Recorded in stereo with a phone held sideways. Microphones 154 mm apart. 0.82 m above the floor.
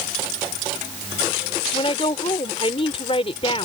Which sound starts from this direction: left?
A woman speaking, at 1.7 s.